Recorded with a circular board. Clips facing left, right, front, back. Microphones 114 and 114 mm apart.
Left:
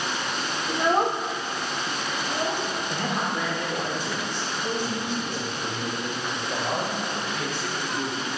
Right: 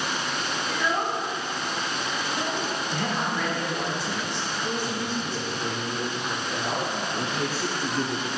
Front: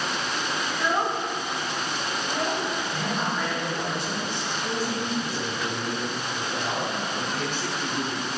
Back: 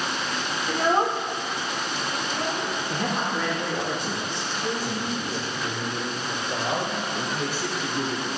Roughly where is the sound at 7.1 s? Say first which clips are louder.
Right 2 dB, back 1 dB; right.